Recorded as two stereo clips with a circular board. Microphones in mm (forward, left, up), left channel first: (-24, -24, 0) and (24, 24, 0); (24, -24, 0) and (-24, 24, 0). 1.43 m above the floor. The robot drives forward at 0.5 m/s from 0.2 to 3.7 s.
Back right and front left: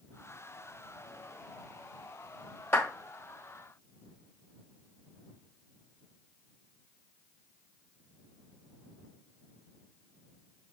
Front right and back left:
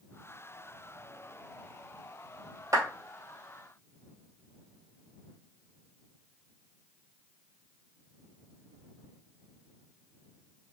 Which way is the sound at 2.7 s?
175° left.